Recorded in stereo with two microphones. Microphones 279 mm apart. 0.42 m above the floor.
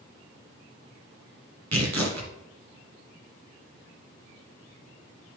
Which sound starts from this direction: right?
Tearing paper, at 1.7 s.